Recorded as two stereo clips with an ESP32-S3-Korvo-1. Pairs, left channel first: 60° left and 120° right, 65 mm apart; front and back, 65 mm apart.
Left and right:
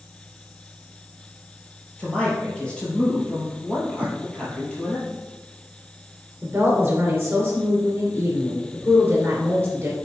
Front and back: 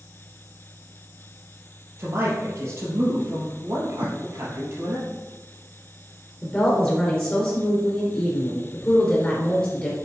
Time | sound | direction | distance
2.0 | a man speaking | 135° left | 3.5 m
4.0 | a whoosh | 55° right | 1.2 m
6.4 | a woman speaking | 60° right | 2.5 m